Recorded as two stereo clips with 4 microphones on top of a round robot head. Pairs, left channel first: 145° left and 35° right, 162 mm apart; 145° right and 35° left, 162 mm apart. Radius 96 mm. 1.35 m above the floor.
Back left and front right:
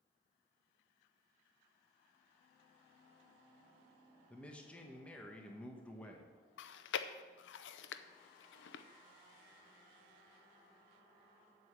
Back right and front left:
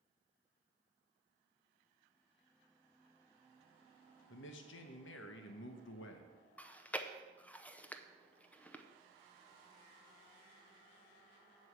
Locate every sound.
4.3 s a man speaking: 135° right, 1.0 m
6.6 s chewing: 135° left, 0.6 m